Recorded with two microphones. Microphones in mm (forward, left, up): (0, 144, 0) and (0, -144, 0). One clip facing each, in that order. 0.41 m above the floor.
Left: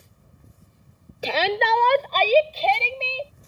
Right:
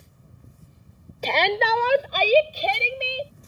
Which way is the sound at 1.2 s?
10° left (ahead or behind).